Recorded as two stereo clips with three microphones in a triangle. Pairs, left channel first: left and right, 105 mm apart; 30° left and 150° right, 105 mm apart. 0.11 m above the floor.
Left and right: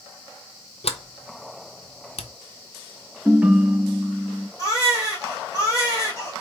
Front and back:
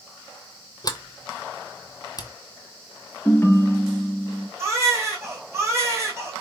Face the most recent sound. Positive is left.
turn(degrees=145)